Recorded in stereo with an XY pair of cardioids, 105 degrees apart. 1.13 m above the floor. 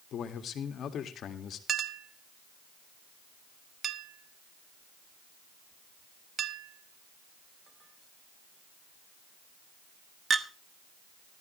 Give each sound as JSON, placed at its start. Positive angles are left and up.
{"t": 0.1, "sound": "a man speaking", "azimuth_deg": 60, "distance_m": 1.9}
{"t": 1.7, "sound": "a clink", "azimuth_deg": -40, "distance_m": 1.2}